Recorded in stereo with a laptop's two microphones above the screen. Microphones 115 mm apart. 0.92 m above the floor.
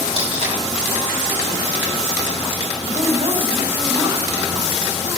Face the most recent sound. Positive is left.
turn(degrees=-50)  # may be behind; listen again after turning